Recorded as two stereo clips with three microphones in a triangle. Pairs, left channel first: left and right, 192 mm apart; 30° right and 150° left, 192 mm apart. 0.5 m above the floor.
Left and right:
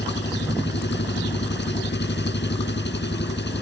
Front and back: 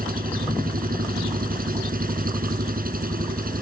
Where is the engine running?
110° left.